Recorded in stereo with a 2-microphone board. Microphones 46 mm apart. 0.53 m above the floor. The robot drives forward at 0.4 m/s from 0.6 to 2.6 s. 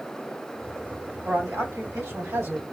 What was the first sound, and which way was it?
A man speaking, 75° right (ahead or behind).